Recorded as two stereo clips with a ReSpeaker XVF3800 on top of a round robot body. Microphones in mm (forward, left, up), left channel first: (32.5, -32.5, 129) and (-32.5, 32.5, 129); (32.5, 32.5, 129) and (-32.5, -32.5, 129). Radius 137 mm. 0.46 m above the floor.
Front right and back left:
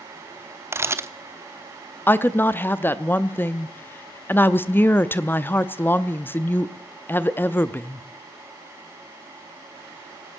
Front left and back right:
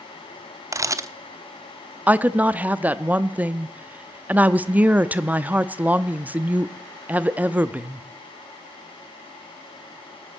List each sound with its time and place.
0.7 s a camera shutter: 175° right, 1.0 m
2.1 s a woman speaking: 85° right, 0.9 m